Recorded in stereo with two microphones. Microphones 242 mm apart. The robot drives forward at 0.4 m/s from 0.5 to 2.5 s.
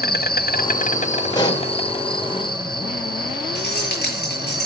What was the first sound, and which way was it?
An insect, 40° left (ahead or behind).